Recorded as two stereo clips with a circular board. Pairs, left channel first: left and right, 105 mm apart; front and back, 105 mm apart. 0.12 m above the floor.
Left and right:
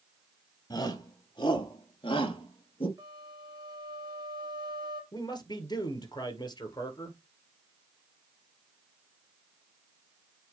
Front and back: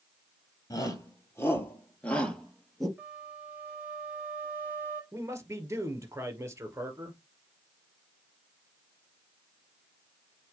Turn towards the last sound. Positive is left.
turn(degrees=125)